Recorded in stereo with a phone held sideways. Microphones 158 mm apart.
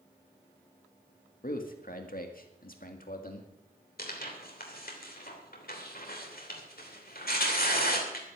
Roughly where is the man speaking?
Left.